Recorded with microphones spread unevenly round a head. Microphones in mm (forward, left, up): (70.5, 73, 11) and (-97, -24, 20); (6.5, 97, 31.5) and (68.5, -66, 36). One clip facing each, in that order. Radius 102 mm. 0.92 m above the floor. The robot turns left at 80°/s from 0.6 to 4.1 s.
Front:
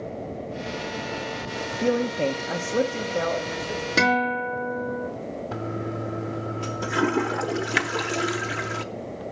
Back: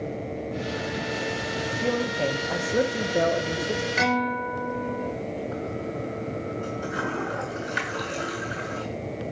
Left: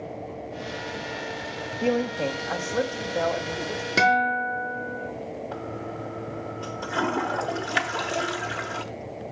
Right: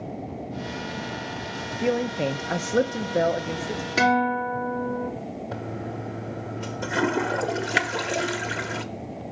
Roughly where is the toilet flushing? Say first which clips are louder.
Front 1 dB, right 1 dB; ahead.